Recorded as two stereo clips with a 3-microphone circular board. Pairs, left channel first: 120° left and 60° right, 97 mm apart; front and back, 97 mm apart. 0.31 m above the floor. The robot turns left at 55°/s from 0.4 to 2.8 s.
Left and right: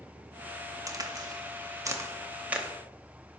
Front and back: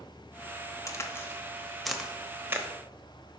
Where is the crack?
35° right, 0.8 m; by 2.7 s 135° right, 0.8 m.